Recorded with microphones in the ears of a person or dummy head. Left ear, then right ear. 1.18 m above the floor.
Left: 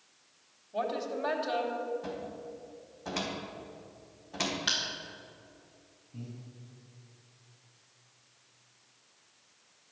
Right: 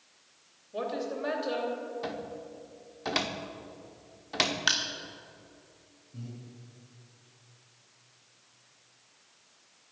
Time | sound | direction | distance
0.7 | a woman speaking | 5° right (ahead or behind) | 3 m
2.0 | a cupboard door | 50° right (ahead or behind) | 1.0 m
4.7 | crushing | 35° right (ahead or behind) | 1.2 m
6.1 | breathing | centre (ahead or behind) | 5 m